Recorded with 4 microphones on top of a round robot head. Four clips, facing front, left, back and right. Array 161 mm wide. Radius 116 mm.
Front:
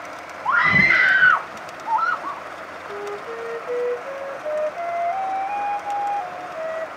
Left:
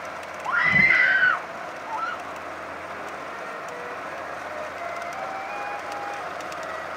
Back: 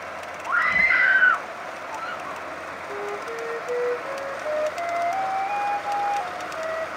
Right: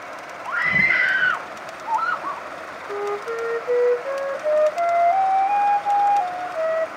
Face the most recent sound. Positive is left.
turn(degrees=-80)